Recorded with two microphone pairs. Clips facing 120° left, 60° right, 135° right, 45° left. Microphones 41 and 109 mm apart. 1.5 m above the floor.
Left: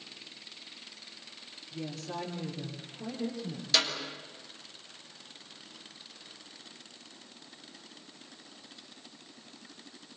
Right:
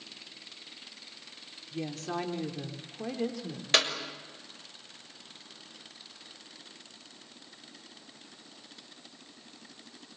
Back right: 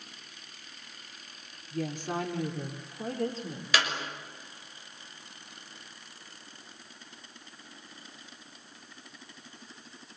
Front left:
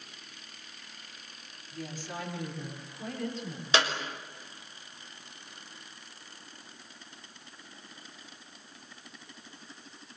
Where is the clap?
20° right, 6.5 m.